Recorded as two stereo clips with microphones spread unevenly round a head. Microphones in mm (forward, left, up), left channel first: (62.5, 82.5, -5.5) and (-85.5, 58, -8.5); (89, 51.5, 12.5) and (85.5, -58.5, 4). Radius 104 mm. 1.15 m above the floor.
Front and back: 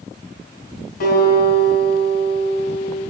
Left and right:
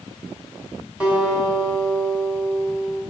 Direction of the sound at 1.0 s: 10° right.